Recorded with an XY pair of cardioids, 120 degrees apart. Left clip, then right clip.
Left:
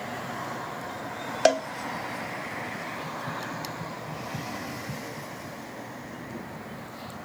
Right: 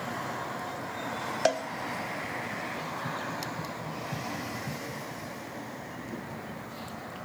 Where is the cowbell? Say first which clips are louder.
Left 6 dB; 30° left, 1.0 m.